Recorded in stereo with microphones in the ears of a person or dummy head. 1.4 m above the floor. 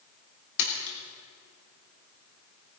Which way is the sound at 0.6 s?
75° left (ahead or behind).